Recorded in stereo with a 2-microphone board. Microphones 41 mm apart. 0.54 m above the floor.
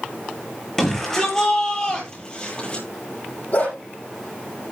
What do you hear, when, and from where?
0.8 s a shout: 10° left (ahead or behind), 10 m; by 2.9 s 30° left (ahead or behind), 11 m
3.5 s a dog barking: 40° left (ahead or behind), 7 m